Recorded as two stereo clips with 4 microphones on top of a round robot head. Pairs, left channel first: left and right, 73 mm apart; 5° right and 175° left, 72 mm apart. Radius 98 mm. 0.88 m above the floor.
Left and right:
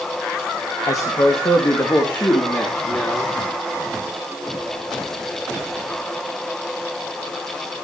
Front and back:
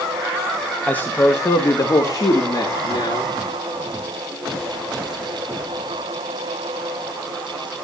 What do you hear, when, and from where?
0.9 s a man speaking: 65° left, 1.3 m; by 3.3 s 15° left, 3 m